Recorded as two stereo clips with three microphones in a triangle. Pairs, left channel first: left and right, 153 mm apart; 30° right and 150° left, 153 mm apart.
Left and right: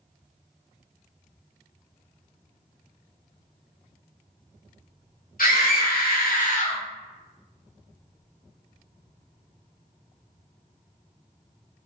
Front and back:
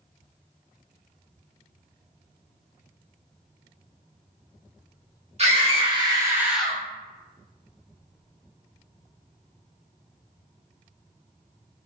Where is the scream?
105° left, 1.2 m; by 6.8 s 45° left, 0.7 m.